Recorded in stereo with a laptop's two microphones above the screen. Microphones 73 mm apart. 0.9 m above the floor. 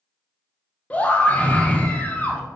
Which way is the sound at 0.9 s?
20° left (ahead or behind).